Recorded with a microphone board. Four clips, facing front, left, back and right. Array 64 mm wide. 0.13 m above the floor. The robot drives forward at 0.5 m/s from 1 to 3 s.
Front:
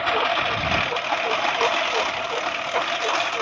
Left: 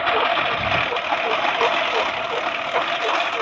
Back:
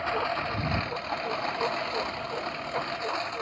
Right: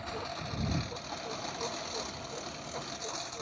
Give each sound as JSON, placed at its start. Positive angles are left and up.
{"t": 0.0, "sound": "a lawn mower", "azimuth_deg": 70}